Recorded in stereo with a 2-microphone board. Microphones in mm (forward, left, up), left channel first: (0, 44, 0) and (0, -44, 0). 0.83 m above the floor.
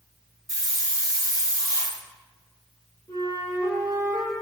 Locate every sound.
0.5 s a hiss: 40° right (ahead or behind), 0.7 m
3.1 s a flute: 45° left (ahead or behind), 1.5 m